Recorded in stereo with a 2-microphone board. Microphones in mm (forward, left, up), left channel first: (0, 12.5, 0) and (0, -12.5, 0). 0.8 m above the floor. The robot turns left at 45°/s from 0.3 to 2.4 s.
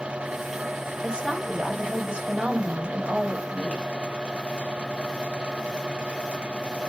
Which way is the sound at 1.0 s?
45° right.